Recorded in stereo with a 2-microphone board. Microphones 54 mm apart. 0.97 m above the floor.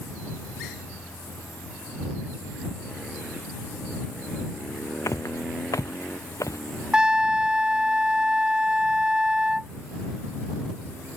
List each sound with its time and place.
5.1 s footsteps: 70° left (ahead or behind)
6.9 s a trumpet: 15° right (ahead or behind)